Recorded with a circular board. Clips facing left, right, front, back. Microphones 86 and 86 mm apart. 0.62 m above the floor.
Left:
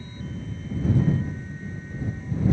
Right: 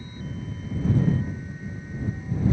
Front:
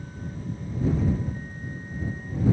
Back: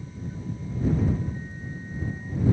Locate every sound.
Only background noise.